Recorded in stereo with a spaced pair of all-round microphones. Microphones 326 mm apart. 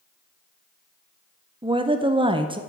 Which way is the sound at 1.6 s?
15° right (ahead or behind).